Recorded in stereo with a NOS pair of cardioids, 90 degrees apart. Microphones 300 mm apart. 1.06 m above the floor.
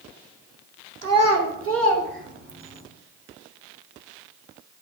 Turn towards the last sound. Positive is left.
turn(degrees=-25)